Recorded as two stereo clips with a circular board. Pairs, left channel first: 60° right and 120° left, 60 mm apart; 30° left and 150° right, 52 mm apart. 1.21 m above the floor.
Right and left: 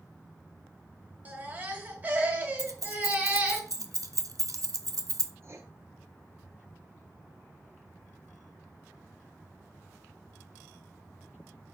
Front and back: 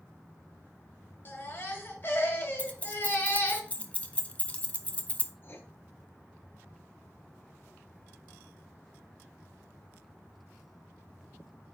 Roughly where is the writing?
Left.